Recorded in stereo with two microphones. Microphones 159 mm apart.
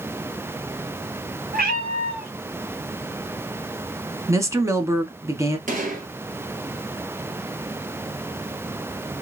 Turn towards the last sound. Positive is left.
turn(degrees=-60)  # may be behind; listen again after turning